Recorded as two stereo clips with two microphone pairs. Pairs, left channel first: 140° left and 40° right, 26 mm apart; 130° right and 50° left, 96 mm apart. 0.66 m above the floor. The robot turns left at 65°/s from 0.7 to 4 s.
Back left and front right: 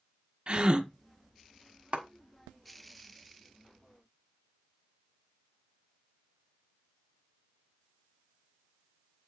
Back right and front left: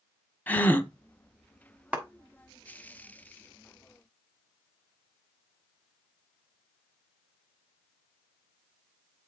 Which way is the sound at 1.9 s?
25° right.